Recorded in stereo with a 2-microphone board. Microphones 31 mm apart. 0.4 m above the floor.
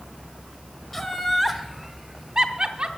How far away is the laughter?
About 1.0 m.